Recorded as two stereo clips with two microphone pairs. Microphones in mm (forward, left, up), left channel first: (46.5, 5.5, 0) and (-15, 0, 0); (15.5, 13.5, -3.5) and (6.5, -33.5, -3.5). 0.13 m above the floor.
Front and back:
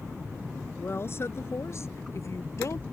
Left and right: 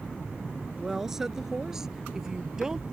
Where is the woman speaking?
20° right; by 2.8 s 25° right.